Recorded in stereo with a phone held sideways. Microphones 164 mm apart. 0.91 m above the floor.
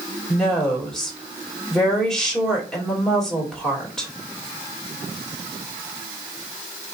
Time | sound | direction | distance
0.3 | a woman speaking | 5° left (ahead or behind) | 2 m